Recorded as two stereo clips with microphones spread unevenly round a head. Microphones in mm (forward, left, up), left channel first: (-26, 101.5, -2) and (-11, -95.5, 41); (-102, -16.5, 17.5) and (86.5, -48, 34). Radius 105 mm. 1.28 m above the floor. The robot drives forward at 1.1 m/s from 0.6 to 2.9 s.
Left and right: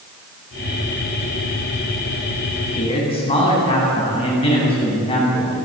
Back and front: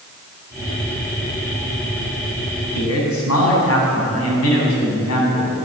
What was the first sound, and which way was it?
A man speaking, 155° left.